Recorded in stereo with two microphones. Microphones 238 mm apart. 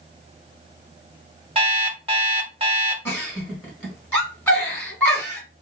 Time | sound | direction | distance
1.6 | an alarm clock | 25° right (ahead or behind) | 1.1 m
3.0 | a giggle | 5° left (ahead or behind) | 1.7 m